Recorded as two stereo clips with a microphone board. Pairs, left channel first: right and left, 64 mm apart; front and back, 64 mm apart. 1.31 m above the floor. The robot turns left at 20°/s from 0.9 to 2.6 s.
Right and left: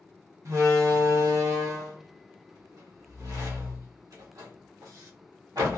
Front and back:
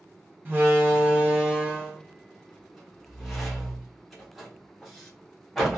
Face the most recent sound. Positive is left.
turn(degrees=90)